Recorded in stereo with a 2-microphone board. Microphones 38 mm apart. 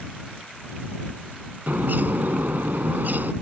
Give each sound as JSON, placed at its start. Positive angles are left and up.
{"t": 1.7, "sound": "a bird", "side_deg": -60}